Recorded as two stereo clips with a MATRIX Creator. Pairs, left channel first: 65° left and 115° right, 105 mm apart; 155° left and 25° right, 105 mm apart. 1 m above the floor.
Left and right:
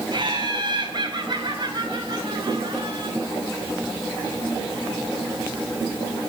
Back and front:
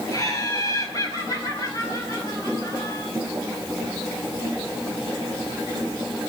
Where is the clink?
I don't hear a clink.